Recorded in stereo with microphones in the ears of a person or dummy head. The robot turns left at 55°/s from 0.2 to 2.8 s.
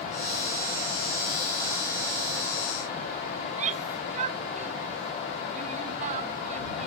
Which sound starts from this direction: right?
A shout, at 3.4 s.